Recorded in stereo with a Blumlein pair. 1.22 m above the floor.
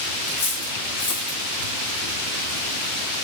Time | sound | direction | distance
0.3 | cutlery clinking | 65° left | 1.3 m